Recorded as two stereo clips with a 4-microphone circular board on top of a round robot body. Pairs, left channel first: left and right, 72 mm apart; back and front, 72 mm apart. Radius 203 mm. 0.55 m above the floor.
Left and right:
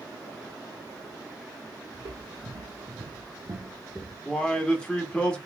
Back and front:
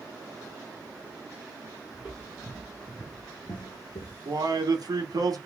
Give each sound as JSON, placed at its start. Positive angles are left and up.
{"t": 1.9, "sound": "footsteps", "azimuth_deg": -75, "distance_m": 1.9}
{"t": 4.2, "sound": "a man speaking", "azimuth_deg": 15, "distance_m": 1.8}